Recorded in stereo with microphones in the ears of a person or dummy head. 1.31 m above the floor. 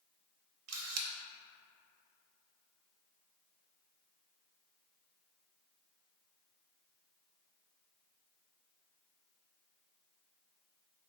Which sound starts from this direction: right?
A camera shutter, at 0.7 s.